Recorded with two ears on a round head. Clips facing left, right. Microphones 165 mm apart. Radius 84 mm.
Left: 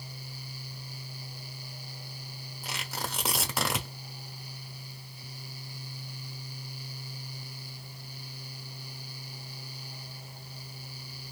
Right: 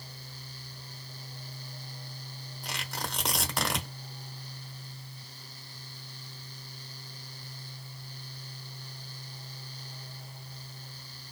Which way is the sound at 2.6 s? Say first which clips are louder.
Left 1 dB; 5° left (ahead or behind).